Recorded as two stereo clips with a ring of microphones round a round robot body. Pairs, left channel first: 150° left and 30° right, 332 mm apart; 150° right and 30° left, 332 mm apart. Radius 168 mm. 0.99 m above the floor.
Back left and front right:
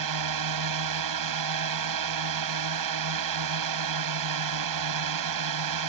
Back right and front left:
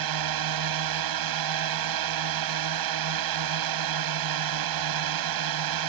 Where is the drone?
Straight ahead.